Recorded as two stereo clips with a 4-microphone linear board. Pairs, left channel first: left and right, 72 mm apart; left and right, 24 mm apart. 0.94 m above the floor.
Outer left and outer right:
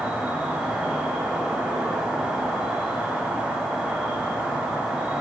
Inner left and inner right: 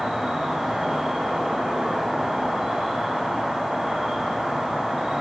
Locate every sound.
0.0 s an insect: 10° right (ahead or behind), 0.8 m